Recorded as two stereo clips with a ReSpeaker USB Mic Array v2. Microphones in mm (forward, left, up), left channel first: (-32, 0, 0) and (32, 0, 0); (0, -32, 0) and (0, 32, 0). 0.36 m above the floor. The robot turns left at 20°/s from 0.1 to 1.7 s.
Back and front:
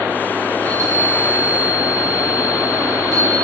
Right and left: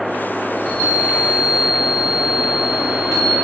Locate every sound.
0.6 s a chime: 35° right, 9.5 m; by 3.3 s 60° right, 9.5 m